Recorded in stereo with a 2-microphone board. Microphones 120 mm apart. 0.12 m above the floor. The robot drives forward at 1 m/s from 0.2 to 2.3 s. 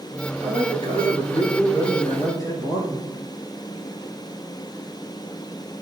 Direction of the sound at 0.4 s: 45° left (ahead or behind).